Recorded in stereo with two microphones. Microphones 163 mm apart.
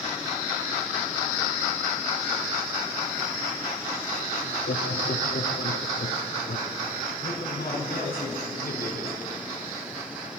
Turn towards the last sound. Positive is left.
turn(degrees=80)